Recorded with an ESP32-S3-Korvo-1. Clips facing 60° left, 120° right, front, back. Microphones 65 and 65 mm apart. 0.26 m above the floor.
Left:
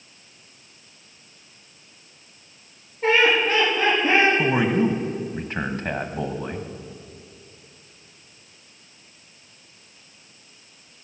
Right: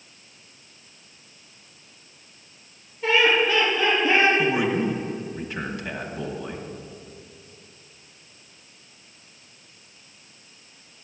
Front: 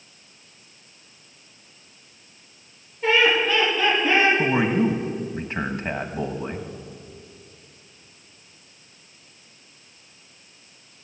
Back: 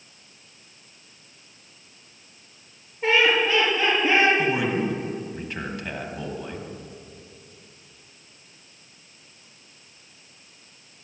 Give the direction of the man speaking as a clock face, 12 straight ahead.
11 o'clock.